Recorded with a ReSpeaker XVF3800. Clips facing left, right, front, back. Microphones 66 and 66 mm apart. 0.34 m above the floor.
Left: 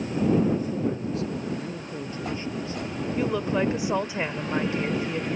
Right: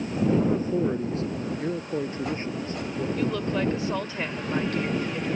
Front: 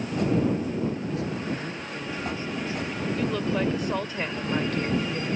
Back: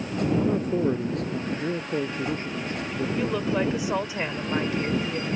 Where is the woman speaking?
125° left.